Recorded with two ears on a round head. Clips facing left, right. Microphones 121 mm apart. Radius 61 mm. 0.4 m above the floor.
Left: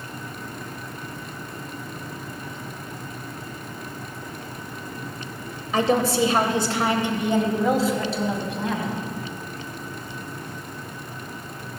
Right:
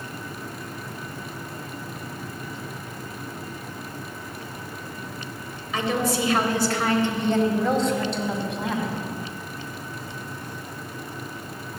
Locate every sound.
5.7 s a woman speaking: 35° left (ahead or behind), 1.8 m; by 8.9 s 5° right (ahead or behind), 3 m